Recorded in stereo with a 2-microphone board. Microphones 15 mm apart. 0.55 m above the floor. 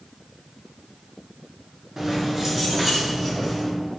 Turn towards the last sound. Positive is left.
turn(degrees=-20)  # may be behind; listen again after turning